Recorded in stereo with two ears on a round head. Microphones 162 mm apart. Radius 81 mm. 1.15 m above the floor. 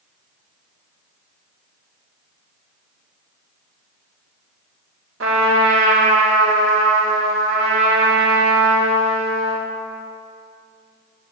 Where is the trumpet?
85° right, 1.7 m.